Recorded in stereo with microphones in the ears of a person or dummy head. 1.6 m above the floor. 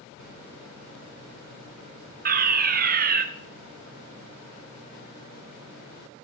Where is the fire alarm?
45° right (ahead or behind), 0.8 m.